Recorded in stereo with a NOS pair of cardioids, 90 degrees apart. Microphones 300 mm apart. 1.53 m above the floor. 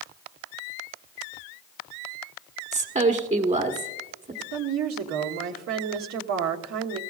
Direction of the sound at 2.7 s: 25° right.